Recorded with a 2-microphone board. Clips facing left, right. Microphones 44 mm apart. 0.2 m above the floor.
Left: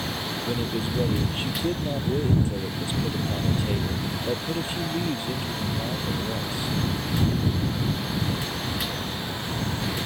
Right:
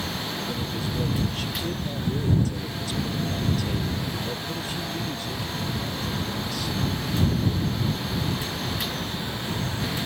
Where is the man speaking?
25° left (ahead or behind).